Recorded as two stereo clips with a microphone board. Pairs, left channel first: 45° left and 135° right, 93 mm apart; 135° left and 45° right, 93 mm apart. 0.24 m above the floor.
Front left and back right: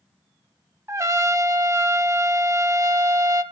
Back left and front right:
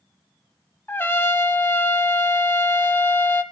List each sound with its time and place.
0.9 s a trumpet: 170° right, 0.7 m